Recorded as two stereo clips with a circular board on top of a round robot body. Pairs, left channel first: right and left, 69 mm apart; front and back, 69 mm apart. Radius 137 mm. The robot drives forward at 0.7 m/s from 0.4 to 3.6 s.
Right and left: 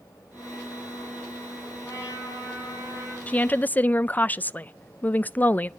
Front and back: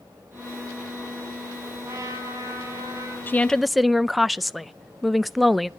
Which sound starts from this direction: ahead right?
A woman speaking, at 3.3 s.